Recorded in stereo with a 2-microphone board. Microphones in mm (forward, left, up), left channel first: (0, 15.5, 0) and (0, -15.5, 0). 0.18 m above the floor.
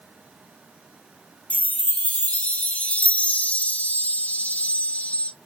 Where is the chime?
55° left (ahead or behind), 0.5 m.